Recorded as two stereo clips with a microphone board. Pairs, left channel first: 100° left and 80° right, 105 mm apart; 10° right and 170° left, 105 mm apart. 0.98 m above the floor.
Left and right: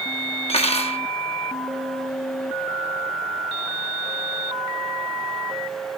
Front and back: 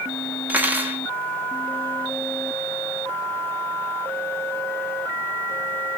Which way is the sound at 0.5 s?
100° left.